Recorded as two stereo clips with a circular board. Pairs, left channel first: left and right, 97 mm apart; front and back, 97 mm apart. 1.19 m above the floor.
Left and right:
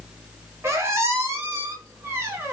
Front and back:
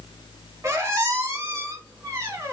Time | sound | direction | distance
0.6 | a squeak | 135° right | 0.8 m